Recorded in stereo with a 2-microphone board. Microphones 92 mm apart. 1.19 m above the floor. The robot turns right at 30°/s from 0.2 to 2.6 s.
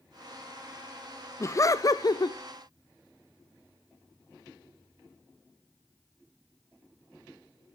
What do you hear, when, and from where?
1.4 s laughter: 35° left (ahead or behind), 0.5 m; by 2.4 s 50° left (ahead or behind), 0.5 m